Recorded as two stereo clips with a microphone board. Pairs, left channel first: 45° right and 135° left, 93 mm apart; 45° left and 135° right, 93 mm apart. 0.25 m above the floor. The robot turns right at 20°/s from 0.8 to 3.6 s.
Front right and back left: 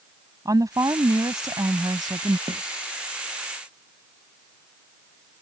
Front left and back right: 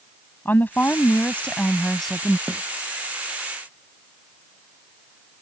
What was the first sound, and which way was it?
A woman speaking, 105° left.